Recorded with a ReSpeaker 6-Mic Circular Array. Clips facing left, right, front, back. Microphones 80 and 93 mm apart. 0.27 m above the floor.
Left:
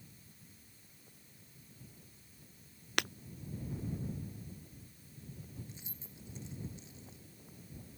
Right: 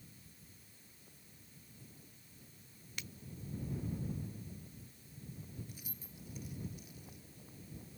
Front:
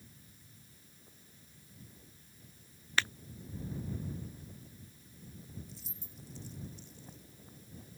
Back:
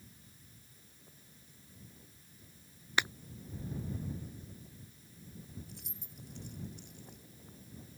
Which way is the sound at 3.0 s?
105° left.